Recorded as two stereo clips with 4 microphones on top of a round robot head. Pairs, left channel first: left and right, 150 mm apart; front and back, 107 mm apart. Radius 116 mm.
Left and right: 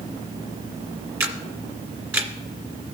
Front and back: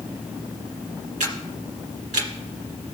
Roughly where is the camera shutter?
Behind.